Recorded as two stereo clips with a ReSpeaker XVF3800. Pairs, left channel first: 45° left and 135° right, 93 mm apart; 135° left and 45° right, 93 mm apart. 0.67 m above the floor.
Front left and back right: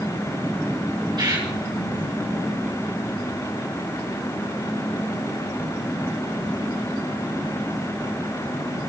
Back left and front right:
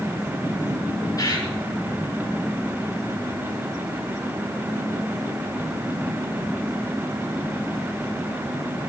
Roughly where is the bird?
Behind.